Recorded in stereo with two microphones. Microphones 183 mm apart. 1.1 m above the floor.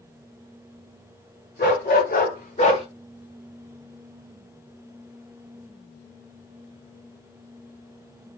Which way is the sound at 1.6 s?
65° left (ahead or behind).